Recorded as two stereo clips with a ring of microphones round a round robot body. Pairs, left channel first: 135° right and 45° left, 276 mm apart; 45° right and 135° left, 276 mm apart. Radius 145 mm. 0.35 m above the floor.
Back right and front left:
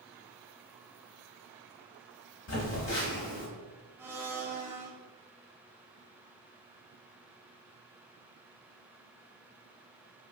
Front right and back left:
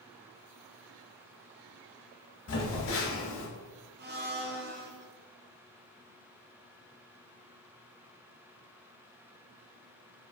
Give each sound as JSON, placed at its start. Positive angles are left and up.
{"t": 2.5, "sound": "a phone buzzing", "azimuth_deg": -90, "distance_m": 1.0}
{"t": 4.0, "sound": "a blender", "azimuth_deg": 120, "distance_m": 0.5}